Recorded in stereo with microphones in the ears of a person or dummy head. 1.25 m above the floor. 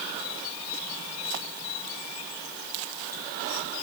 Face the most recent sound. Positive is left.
No sound to turn to.